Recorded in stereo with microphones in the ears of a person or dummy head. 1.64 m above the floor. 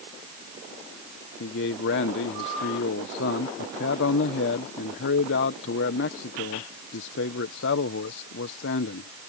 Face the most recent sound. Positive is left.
turn(degrees=65)  # may be behind; listen again after turning